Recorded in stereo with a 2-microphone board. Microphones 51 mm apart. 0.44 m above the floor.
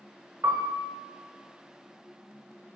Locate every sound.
0.4 s a piano: 75° right (ahead or behind), 0.8 m